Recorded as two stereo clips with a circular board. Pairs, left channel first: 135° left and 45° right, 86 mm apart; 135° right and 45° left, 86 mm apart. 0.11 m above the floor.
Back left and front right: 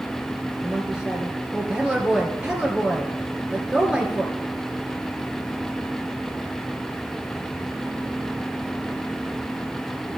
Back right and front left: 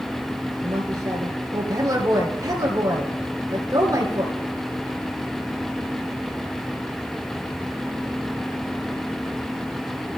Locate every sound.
0.6 s a woman speaking: 30° left, 1.8 m